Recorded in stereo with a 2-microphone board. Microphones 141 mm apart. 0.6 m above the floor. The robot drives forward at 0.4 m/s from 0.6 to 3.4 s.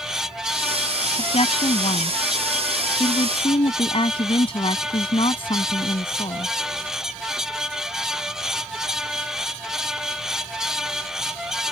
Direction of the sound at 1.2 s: 50° left (ahead or behind).